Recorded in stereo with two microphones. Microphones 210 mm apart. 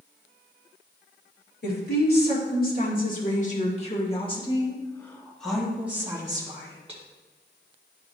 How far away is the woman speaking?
About 2.5 m.